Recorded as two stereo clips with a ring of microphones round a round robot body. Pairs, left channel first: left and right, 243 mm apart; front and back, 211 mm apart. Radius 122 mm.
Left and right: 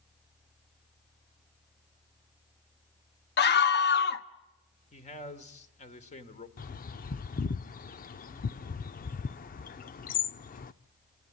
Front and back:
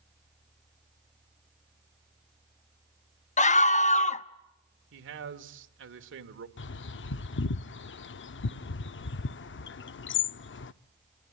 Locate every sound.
3.4 s a scream: 50° left, 1.1 m
4.9 s a man speaking: 155° left, 2 m
6.6 s a bird: 35° left, 0.6 m